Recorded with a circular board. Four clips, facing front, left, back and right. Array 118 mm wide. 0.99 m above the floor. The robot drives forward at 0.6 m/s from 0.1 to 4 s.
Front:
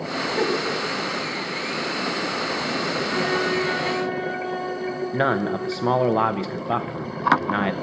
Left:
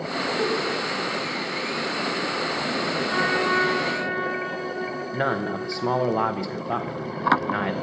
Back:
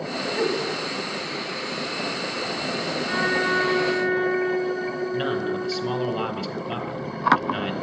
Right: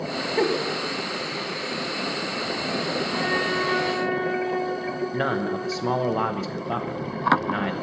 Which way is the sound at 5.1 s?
10° left.